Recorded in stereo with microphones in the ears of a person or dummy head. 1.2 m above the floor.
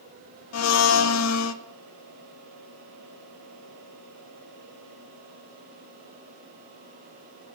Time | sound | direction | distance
0.5 | a blender | 70° left (ahead or behind) | 0.6 m